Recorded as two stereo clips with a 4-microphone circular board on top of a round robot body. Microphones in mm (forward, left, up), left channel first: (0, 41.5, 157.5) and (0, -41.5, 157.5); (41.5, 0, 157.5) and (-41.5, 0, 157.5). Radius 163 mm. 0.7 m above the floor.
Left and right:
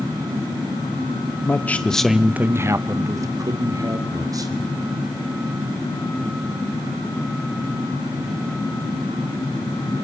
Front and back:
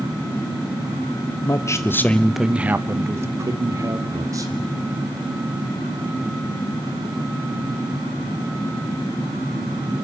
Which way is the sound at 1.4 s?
35° left.